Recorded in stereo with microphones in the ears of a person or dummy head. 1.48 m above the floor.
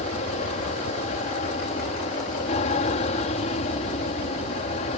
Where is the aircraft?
40° left (ahead or behind); by 5.0 s 35° left (ahead or behind).